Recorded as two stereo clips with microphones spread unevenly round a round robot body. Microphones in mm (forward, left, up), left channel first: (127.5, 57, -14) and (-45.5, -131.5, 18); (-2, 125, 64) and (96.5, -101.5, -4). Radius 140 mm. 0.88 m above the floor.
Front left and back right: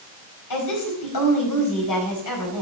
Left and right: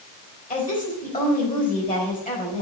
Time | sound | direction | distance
0.5 | a woman speaking | 55° left | 4.5 m